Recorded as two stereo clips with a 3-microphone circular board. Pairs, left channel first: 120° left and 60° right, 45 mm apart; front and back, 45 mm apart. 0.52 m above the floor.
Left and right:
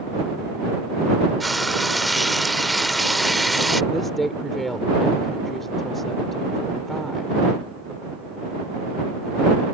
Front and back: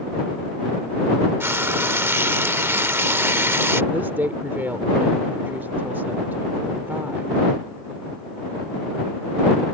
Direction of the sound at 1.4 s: 150° right.